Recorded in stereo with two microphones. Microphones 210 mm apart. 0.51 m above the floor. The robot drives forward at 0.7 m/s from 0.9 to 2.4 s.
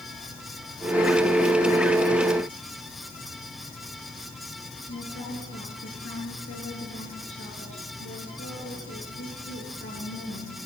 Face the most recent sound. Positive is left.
turn(degrees=75)  # may be behind; listen again after turning